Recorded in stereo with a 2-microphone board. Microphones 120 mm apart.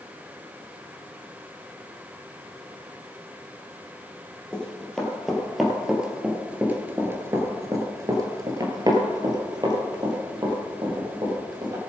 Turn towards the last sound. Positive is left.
turn(degrees=-35)  # may be behind; listen again after turning